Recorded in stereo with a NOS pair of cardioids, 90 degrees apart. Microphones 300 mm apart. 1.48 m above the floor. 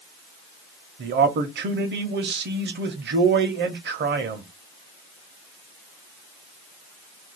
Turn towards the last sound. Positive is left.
turn(degrees=-40)